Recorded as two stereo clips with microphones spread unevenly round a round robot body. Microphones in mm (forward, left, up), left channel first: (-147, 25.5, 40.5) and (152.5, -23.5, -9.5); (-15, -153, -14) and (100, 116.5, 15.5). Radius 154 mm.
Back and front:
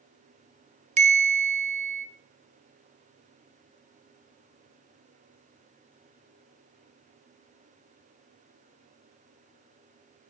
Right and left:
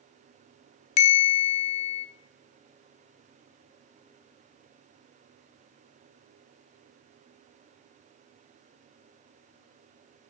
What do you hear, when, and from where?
1.0 s a bell: 80° right, 1.4 m